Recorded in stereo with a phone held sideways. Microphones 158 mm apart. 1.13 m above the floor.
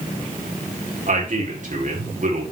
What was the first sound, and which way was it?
A man speaking, 55° right (ahead or behind).